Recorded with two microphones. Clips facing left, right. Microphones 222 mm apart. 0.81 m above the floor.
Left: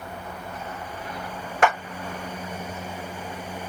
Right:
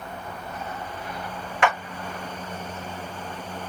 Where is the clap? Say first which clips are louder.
Left 2 dB; 45° left (ahead or behind), 1.0 m.